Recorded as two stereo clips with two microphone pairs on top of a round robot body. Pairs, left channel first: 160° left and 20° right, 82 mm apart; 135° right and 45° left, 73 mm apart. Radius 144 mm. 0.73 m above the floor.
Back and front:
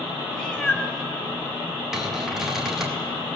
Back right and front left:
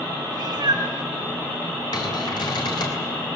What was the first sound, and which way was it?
A cat meowing, 80° left.